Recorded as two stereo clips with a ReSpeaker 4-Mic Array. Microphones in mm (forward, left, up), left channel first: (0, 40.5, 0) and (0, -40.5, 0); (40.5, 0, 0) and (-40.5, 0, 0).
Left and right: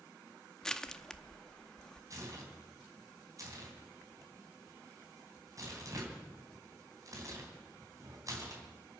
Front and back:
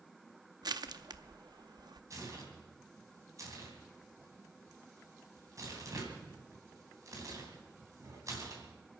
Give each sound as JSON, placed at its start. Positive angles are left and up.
{"t": 0.6, "sound": "crushing", "azimuth_deg": 170, "distance_m": 0.7}
{"t": 2.1, "sound": "tearing paper", "azimuth_deg": -135, "distance_m": 3.5}